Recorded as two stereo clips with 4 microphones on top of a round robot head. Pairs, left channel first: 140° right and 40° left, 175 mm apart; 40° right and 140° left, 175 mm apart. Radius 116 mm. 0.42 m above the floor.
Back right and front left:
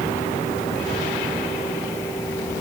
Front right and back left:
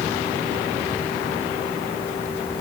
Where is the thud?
No thud in this recording.